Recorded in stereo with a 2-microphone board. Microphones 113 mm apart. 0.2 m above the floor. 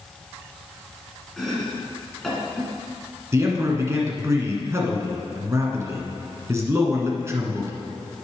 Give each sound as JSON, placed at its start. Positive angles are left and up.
{"t": 1.4, "sound": "chopping", "side_deg": 0, "distance_m": 2.5}
{"t": 3.3, "sound": "a man speaking", "side_deg": -25, "distance_m": 1.7}